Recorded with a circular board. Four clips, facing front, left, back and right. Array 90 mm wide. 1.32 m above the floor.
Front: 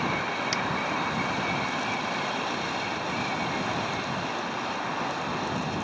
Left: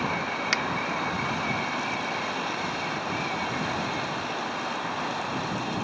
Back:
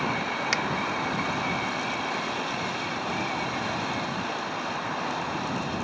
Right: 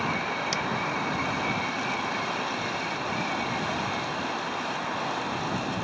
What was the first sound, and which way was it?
A finger snap, 125° left.